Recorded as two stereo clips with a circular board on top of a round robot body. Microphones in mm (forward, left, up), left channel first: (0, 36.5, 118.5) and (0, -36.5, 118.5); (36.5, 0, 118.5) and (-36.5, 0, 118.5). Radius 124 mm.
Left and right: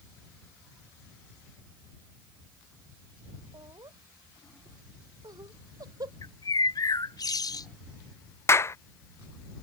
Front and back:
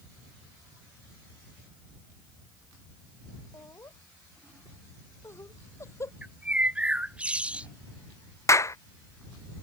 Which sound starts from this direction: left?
A bird, at 6.2 s.